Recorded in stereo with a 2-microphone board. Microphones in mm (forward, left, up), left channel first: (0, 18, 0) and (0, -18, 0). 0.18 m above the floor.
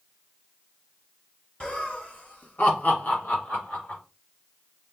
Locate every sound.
1.6 s laughter: 30° left (ahead or behind), 1.6 m; by 4.0 s 55° left (ahead or behind), 2.5 m